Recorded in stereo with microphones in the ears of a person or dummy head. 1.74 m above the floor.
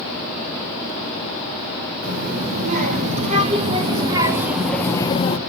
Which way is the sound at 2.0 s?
50° right (ahead or behind).